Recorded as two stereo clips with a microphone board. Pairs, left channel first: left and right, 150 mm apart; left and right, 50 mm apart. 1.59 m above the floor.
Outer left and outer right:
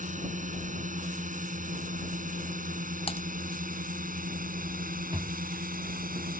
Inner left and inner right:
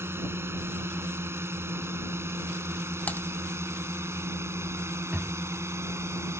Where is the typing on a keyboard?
40° left (ahead or behind).